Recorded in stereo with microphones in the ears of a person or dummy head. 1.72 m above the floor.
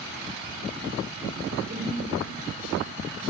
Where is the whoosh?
45° right (ahead or behind), 3 m.